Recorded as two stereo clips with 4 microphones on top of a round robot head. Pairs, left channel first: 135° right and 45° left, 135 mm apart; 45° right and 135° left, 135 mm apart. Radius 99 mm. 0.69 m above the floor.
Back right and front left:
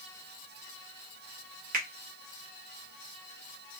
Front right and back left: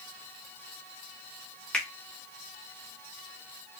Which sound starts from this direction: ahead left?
A finger snap, at 1.7 s.